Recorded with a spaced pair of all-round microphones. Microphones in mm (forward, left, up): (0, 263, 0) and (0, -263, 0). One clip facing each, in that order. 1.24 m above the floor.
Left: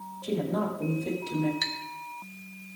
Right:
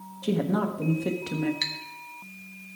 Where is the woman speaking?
80° right, 1.7 m.